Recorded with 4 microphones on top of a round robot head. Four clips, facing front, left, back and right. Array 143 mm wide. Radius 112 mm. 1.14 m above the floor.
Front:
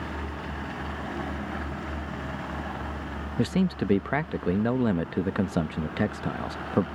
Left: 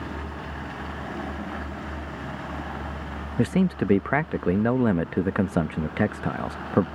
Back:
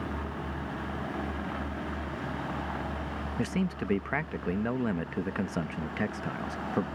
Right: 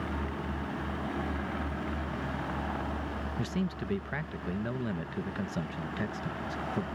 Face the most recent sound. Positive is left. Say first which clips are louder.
# left 13 dB, front 6 dB
turn(degrees=70)